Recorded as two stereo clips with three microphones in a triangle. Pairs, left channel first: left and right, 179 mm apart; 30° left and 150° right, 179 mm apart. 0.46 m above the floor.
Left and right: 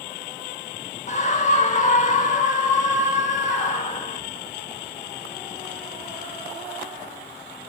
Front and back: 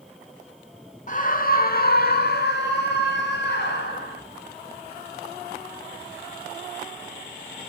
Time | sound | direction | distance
1.1 | a scream | 55° left | 1.0 m